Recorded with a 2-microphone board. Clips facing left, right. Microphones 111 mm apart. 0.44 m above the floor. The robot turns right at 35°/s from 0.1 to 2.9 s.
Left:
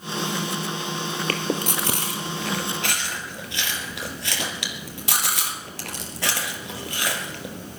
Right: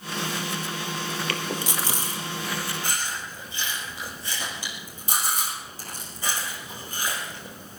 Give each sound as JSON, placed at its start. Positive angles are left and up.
{"t": 1.3, "sound": "chewing", "side_deg": 45, "distance_m": 2.0}